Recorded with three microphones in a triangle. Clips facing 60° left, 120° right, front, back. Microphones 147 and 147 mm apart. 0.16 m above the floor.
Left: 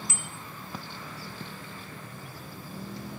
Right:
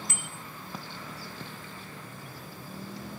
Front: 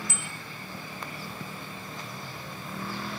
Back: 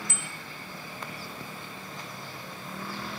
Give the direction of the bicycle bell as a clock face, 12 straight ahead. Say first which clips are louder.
Left 1 dB, front 1 dB; 5 o'clock.